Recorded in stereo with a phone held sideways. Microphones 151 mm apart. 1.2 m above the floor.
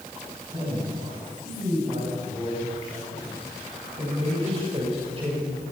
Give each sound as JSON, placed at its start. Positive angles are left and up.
{"t": 0.5, "sound": "a man speaking", "side_deg": -40, "distance_m": 10.0}